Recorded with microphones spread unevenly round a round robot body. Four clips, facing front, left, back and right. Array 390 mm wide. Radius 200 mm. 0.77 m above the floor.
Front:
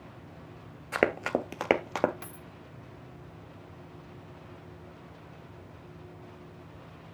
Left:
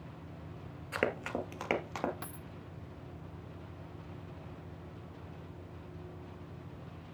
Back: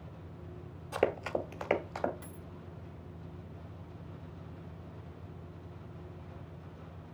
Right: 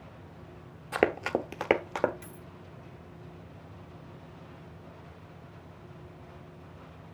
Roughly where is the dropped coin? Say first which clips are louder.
Left 1 dB, front 2 dB; ahead left.